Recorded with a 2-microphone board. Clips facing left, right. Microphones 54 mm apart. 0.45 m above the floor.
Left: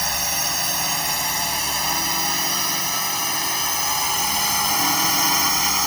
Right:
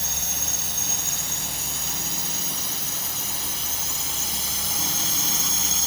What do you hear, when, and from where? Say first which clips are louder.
0.0 s a drone: left 9 dB; 65° left (ahead or behind); by 5.9 s 55° left (ahead or behind)